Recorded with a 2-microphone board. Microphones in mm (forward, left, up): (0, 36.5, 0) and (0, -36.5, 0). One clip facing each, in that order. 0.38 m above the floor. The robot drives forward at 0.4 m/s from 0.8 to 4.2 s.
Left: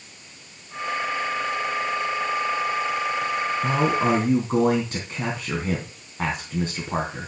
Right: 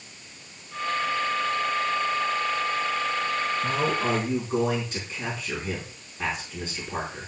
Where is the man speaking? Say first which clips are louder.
Left 6 dB; 55° left (ahead or behind), 3 m; by 7.3 s 50° left (ahead or behind), 3 m.